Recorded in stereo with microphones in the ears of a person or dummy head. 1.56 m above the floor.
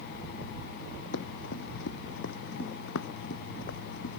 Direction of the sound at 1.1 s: 75° left (ahead or behind).